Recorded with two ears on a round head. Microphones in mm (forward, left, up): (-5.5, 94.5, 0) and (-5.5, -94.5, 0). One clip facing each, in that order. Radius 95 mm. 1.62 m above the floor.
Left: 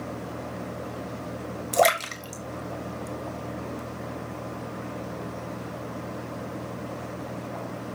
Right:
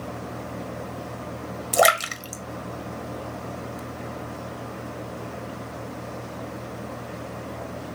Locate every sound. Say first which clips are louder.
1.7 s a splash: right 1 dB; 10° right (ahead or behind), 1.9 m